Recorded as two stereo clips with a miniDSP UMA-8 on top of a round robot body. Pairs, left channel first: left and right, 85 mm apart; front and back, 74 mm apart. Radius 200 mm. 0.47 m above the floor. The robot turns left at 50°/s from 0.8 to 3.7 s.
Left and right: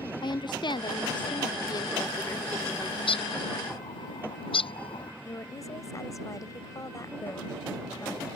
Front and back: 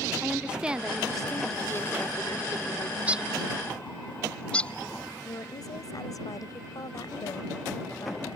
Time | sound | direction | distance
0.2 | a woman speaking | 105° left | ?
3.0 | a bird | 115° left | ?
5.2 | a woman speaking | 40° left | ?